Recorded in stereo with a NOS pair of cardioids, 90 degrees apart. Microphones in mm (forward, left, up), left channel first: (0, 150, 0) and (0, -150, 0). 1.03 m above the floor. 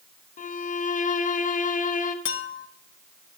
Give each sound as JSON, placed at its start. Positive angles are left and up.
{"t": 0.4, "sound": "a violin", "azimuth_deg": 30, "distance_m": 0.8}
{"t": 2.2, "sound": "a clink", "azimuth_deg": 45, "distance_m": 0.8}